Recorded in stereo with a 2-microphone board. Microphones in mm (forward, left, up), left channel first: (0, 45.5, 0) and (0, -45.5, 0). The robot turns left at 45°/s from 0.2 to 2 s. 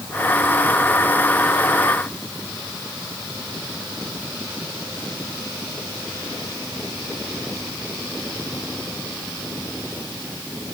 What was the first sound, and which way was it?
Only background noise.